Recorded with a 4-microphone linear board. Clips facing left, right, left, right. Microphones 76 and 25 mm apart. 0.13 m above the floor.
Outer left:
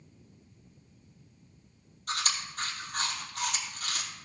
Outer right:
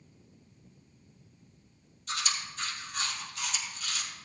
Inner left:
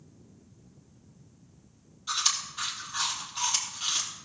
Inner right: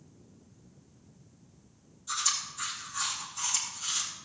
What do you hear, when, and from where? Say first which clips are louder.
2.1 s chewing: outer left 1 dB, inner left 3 dB; 50° left (ahead or behind), 2.5 m